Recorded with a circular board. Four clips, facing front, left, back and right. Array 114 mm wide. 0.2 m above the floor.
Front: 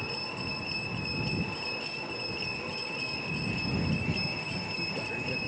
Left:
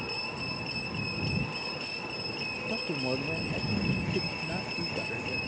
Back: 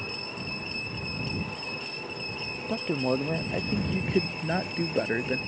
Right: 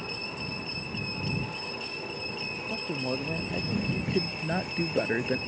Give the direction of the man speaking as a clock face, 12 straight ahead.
6 o'clock.